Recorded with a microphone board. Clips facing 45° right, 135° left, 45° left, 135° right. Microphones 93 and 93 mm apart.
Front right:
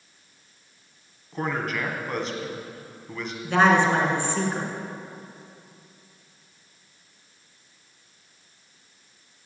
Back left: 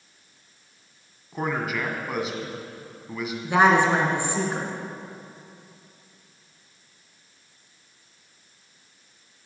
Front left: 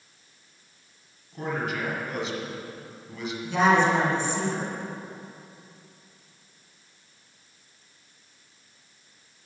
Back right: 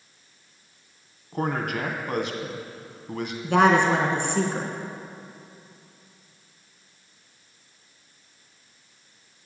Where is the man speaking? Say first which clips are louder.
Back left 1 dB, back right 3 dB; 140° right, 2.0 m.